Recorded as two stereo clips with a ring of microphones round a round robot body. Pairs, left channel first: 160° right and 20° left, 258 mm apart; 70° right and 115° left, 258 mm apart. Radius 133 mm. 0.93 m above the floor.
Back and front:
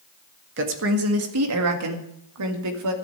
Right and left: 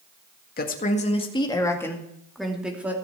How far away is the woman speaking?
About 1.8 m.